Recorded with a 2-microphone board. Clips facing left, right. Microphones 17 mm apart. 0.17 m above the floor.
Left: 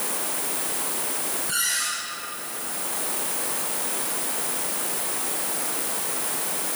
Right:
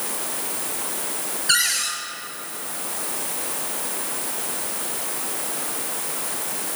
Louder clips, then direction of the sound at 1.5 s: Right 6 dB; 55° right (ahead or behind).